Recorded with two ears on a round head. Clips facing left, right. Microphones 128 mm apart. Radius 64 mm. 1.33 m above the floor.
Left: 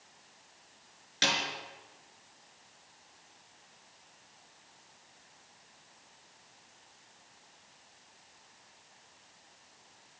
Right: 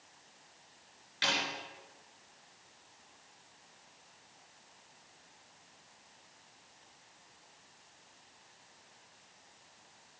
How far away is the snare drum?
About 5 m.